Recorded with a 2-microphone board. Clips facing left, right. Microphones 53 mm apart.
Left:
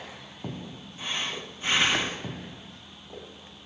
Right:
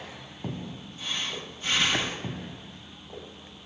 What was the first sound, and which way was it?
Breathing, 25° left (ahead or behind).